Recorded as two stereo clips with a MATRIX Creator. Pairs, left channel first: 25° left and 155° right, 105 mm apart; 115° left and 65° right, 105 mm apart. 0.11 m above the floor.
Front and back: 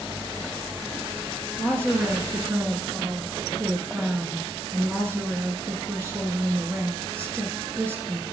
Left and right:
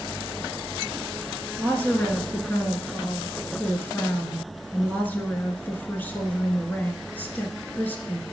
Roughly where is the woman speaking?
Behind.